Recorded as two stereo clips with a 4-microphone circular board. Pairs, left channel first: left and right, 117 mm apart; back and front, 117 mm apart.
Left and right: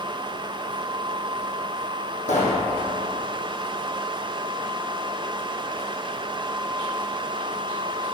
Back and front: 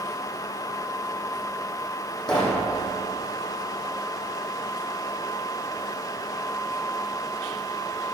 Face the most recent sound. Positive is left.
turn(degrees=95)